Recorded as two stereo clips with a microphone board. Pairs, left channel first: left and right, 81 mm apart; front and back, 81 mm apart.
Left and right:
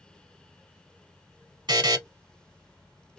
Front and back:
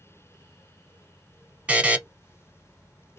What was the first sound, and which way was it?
A buzzer, 110° right.